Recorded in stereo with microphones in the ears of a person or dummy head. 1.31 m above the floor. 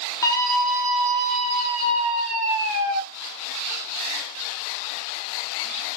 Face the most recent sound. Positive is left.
turn(degrees=-65)  # may be behind; listen again after turning